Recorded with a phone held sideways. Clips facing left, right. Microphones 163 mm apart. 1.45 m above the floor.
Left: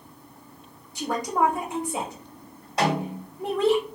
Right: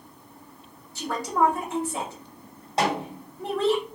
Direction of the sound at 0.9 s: 15° left (ahead or behind).